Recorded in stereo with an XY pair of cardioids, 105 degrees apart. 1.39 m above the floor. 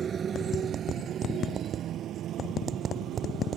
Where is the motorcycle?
45° right; by 3.6 s 80° right.